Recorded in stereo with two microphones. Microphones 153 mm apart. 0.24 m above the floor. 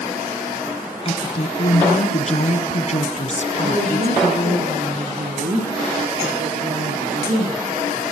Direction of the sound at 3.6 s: 55° right (ahead or behind).